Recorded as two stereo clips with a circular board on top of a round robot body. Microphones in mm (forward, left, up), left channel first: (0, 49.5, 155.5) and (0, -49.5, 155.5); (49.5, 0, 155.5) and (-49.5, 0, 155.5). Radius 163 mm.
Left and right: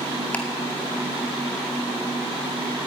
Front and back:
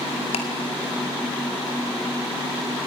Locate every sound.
0.3 s ticking: 15° left, 2 m